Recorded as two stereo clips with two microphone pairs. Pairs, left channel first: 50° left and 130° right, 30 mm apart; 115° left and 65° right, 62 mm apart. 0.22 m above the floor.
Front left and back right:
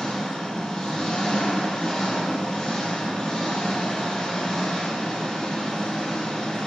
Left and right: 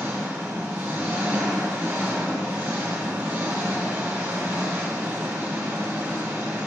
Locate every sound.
0.0 s an engine running: 10° right, 1.4 m